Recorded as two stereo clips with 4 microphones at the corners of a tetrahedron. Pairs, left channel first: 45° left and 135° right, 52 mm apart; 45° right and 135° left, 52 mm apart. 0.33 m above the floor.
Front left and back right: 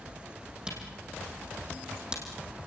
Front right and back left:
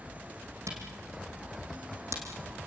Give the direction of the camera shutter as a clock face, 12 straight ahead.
7 o'clock.